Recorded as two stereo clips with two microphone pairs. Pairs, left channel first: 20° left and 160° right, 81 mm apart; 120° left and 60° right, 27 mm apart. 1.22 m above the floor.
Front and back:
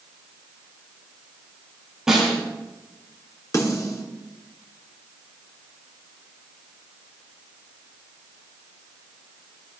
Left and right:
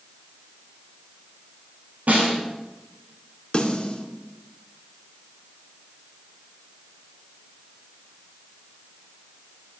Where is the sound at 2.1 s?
75° right, 9 m.